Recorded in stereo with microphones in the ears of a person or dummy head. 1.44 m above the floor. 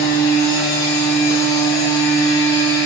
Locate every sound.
0.0 s a machine running: 10° left (ahead or behind), 3.5 m